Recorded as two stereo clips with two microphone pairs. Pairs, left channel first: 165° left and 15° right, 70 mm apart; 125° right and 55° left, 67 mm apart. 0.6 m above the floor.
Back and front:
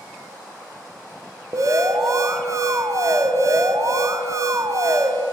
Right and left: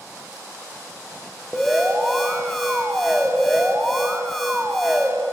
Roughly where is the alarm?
Ahead right.